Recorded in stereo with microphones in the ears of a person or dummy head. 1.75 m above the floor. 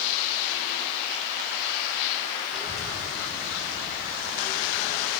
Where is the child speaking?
5° left (ahead or behind), 2.5 m; by 5.1 s 15° right (ahead or behind), 4 m.